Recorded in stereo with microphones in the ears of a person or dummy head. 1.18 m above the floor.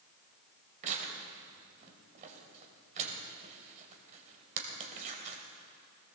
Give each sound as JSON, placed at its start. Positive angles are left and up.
{"t": 0.8, "sound": "tearing paper", "side_deg": -40, "distance_m": 2.5}